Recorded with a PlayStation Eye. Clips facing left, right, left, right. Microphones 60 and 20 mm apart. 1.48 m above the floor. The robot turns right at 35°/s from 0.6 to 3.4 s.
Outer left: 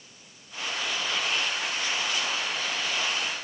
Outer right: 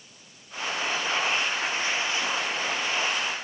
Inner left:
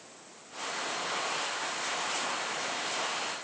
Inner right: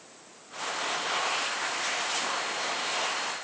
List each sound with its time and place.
Only background noise.